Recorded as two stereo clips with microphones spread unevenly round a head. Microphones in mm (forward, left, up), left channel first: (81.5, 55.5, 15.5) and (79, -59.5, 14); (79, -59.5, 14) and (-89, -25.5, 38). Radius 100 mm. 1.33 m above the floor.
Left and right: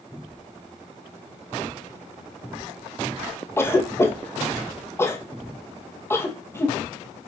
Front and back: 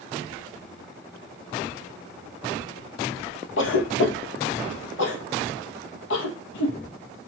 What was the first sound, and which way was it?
A cough, 20° left.